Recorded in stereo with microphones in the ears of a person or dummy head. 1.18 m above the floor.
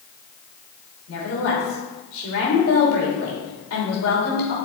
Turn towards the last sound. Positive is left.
turn(degrees=80)